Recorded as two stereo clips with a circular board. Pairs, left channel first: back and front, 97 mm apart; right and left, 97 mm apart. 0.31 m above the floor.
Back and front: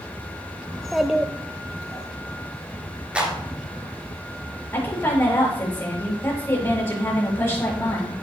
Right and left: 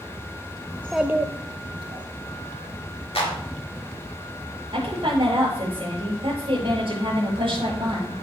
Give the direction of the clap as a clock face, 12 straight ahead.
3 o'clock.